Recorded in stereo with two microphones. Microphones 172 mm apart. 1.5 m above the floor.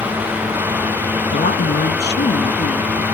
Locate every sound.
1.3 s a woman speaking: 85° left; by 3.0 s 75° left (ahead or behind)